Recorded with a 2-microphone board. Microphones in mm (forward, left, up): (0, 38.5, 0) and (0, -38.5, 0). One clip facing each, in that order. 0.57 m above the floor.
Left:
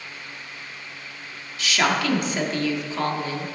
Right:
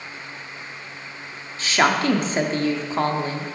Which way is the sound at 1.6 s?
35° right (ahead or behind).